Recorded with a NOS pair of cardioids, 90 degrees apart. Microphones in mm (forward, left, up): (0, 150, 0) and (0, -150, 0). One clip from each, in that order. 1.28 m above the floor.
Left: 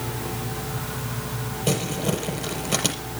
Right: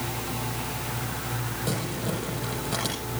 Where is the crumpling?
60° left, 5.5 m.